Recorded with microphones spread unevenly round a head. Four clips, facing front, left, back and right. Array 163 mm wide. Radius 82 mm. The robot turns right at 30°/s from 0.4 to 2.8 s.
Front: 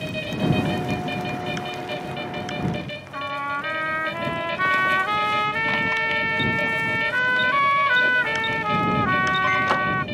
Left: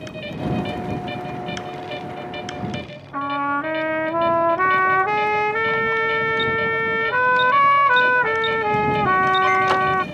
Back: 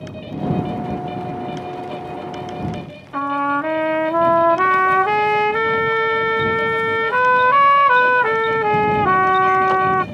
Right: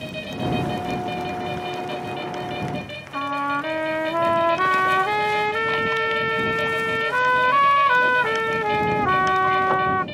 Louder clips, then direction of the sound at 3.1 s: Left 2 dB, back 9 dB; 175° left.